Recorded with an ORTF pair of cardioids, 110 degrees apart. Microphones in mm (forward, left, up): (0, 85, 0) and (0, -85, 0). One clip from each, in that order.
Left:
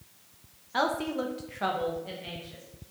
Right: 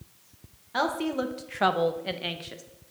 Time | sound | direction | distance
0.7 | a woman speaking | 5° right | 1.0 m